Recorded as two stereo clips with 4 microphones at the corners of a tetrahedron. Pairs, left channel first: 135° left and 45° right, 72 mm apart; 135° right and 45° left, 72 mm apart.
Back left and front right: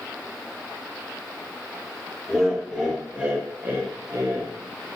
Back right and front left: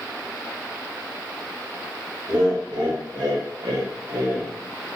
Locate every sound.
2.3 s laughter: 50° left, 1.4 m; by 4.5 s 20° right, 0.8 m